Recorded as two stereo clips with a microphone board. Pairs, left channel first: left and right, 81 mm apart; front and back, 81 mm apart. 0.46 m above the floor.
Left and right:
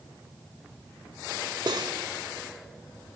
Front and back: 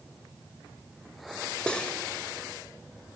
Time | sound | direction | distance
1.7 | cutlery clinking | 75° right | 1.2 m